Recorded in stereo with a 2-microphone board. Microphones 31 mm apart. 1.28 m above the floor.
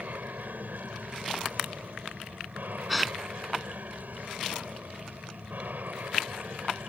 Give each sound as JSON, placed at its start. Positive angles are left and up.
{"t": 0.0, "sound": "an aircraft", "side_deg": -75}
{"t": 2.9, "sound": "a gasp", "side_deg": 0}